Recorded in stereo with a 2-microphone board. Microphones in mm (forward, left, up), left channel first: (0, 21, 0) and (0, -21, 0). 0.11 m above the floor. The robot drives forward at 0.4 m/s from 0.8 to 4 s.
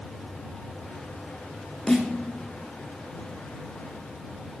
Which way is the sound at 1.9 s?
15° left (ahead or behind).